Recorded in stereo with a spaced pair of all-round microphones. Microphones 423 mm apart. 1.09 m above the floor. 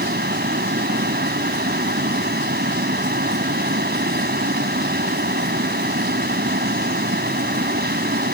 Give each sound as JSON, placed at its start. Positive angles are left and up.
{"t": 0.0, "sound": "a fan", "side_deg": -20}